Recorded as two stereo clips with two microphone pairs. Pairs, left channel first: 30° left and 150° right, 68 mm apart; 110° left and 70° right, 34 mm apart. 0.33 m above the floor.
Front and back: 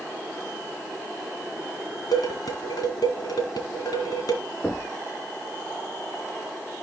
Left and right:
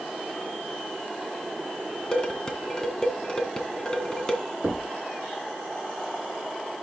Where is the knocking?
40° right, 5 m.